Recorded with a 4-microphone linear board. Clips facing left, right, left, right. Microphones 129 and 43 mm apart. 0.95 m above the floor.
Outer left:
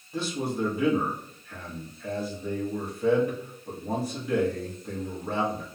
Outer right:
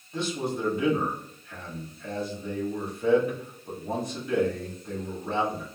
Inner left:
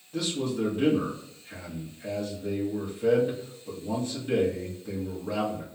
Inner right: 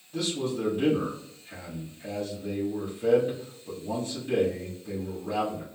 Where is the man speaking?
5° left (ahead or behind), 1.1 m.